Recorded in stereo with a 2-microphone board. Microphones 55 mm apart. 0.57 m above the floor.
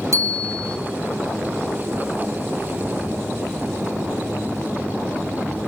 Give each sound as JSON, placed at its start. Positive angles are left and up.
{"t": 0.1, "sound": "a bicycle bell", "side_deg": -60, "distance_m": 3.5}